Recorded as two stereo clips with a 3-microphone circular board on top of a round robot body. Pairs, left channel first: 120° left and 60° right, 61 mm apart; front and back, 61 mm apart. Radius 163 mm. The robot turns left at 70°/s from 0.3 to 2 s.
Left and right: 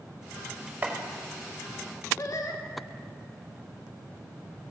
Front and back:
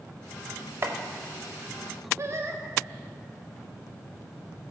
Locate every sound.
0.8 s chopping: 125° right, 0.6 m; by 0.9 s 135° right, 0.6 m
2.2 s singing: 140° left, 1.3 m